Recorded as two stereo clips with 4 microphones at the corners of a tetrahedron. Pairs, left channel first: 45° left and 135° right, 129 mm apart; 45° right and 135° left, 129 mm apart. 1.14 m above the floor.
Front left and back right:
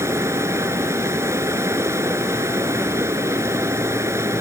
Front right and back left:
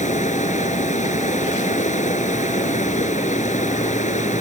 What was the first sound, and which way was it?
Running water, 65° right.